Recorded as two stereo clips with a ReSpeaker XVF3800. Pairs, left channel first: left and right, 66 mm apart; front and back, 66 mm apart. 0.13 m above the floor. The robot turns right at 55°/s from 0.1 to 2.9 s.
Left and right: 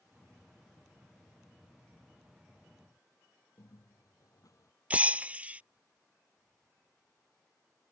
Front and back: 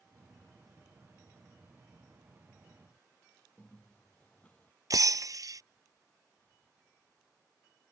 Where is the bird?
70° left.